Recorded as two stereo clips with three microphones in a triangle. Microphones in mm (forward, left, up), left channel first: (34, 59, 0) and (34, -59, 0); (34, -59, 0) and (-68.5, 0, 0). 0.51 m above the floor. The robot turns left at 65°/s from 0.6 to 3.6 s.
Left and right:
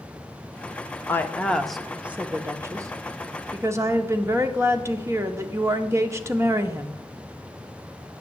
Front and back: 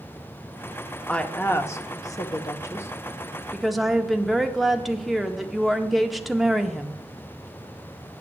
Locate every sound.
1.1 s a woman speaking: 40° left, 0.7 m; by 7.0 s 120° right, 0.7 m